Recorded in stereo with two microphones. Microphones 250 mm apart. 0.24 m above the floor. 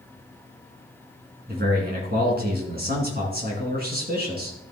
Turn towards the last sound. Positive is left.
turn(degrees=-40)  # may be behind; listen again after turning